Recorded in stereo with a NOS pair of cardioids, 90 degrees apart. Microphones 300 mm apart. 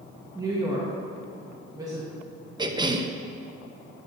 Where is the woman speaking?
10° right, 1.6 m.